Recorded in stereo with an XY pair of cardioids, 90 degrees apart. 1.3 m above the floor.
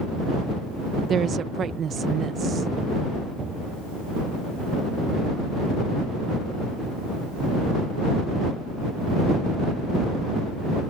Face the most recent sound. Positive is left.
turn(degrees=-60)